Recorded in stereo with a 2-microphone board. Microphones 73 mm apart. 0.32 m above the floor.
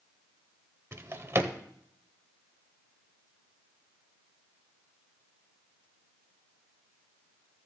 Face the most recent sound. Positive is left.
turn(degrees=-35)  # may be behind; listen again after turning